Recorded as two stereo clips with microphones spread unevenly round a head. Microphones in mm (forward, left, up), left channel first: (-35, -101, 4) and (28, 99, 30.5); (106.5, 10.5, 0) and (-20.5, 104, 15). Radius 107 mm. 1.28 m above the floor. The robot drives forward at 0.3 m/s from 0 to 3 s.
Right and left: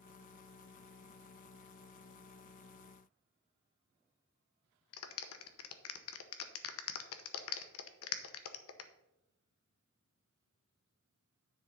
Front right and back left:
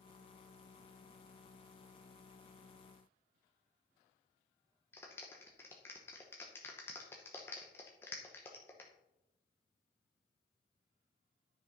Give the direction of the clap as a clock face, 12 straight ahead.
4 o'clock.